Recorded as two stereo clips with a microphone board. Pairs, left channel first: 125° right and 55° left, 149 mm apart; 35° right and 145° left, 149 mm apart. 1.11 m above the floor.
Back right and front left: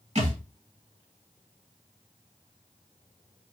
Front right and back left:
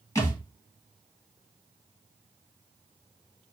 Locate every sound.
0.1 s a thud: 25° left, 1.4 m